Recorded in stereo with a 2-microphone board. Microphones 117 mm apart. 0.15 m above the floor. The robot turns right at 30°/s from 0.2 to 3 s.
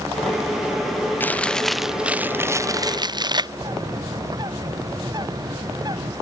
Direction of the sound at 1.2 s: 165° left.